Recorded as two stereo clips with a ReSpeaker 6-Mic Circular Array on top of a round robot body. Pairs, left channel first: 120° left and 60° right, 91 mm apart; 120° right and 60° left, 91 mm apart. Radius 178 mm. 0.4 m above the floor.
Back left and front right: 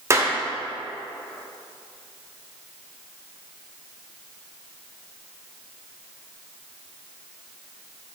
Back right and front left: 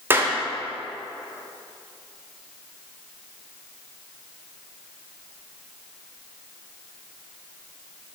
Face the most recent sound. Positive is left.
turn(degrees=-5)